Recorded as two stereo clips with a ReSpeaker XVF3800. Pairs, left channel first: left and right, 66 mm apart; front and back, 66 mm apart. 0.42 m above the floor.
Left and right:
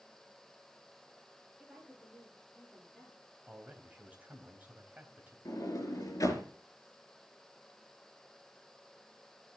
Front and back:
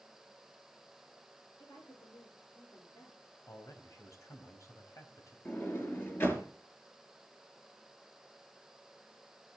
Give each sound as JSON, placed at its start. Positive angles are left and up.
{"t": 1.6, "sound": "a woman speaking", "azimuth_deg": 0, "distance_m": 10.0}
{"t": 3.5, "sound": "a man speaking", "azimuth_deg": -25, "distance_m": 3.0}
{"t": 5.5, "sound": "a sliding door", "azimuth_deg": 55, "distance_m": 3.5}